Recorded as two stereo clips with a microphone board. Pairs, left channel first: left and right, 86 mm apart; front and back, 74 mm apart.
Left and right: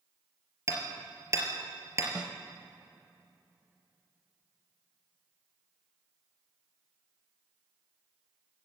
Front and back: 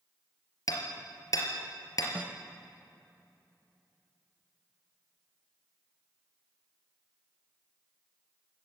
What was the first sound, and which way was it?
Hammering, 35° right.